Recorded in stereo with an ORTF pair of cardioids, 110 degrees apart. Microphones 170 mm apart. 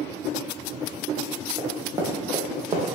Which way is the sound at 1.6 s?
20° right.